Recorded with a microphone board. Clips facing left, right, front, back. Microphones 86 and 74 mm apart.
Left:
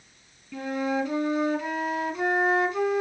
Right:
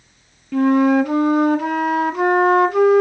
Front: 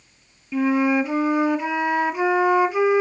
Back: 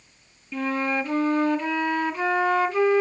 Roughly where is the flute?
Right.